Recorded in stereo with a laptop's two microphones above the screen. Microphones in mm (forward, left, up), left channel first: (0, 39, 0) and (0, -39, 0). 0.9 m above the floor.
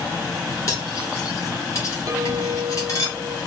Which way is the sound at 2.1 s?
50° right (ahead or behind).